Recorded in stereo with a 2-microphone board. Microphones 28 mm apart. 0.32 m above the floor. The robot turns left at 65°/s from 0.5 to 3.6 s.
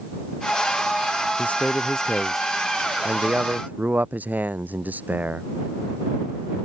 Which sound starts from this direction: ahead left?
A man speaking, at 1.4 s.